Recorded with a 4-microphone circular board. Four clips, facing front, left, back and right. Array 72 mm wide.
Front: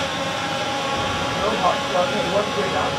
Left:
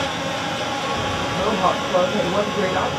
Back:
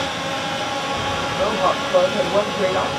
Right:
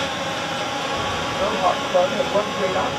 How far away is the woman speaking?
About 1.8 m.